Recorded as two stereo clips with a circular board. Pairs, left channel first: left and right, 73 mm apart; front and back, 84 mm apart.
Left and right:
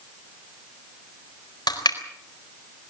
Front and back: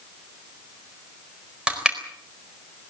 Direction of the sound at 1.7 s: 100° left.